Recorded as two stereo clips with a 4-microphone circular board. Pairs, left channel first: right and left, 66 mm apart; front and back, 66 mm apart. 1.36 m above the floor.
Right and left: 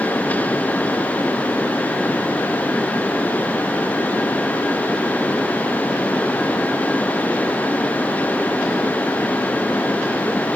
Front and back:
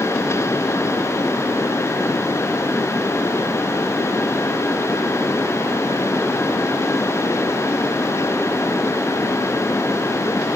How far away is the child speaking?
No child speaking in this recording.